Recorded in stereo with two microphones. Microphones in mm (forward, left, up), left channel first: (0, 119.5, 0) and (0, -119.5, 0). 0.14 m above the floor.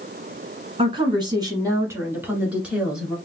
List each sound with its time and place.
0.8 s a woman speaking: 25° right (ahead or behind), 1.4 m; by 3.2 s centre (ahead or behind), 1.9 m